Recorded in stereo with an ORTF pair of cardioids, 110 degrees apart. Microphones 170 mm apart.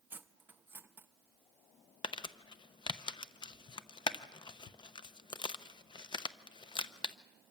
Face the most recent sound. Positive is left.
turn(degrees=30)